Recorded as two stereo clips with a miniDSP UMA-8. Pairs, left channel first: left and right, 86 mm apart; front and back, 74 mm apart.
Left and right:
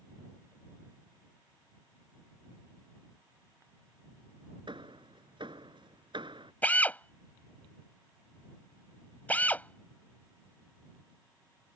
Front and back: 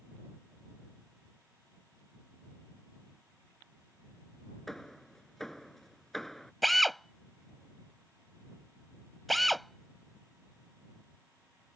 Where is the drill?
90° left.